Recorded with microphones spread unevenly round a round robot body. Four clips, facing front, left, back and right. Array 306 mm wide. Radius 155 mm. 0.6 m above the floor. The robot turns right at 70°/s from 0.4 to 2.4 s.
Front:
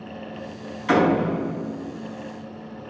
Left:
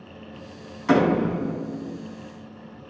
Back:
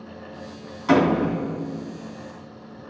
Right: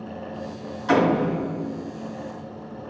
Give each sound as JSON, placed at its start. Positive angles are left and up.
{"t": 0.9, "sound": "a door slam", "azimuth_deg": 120, "distance_m": 3.5}